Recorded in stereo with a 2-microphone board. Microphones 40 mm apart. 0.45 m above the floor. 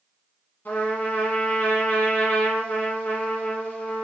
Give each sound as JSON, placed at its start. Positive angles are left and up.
{"t": 0.7, "sound": "a trumpet", "side_deg": 55, "distance_m": 1.4}